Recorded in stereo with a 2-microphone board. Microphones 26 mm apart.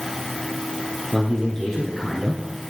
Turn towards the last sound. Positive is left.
turn(degrees=5)  # may be behind; listen again after turning